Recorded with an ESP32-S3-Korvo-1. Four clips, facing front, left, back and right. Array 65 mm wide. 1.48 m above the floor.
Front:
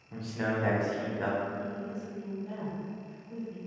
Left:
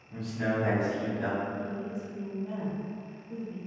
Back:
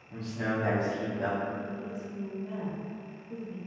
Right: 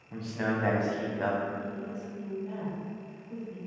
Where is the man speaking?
65° right, 0.7 m.